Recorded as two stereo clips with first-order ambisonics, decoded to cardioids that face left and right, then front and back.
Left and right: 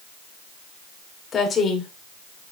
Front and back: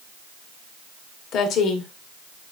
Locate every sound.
1.3 s a woman speaking: 30° left, 1.9 m; by 2.5 s 40° left, 2.5 m